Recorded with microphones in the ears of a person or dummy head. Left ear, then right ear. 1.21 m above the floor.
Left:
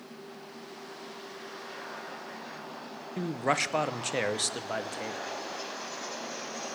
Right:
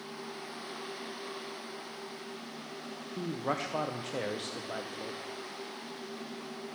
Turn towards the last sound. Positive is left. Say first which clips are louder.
# left 6 dB
turn(degrees=55)  # may be behind; listen again after turning